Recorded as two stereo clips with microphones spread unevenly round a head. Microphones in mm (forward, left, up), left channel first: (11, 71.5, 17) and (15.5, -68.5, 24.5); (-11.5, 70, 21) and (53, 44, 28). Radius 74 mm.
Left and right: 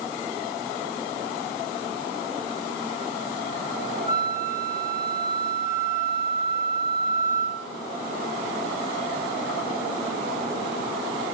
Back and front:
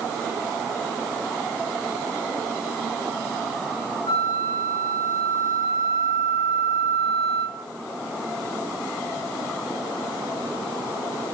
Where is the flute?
130° left, 1.2 m.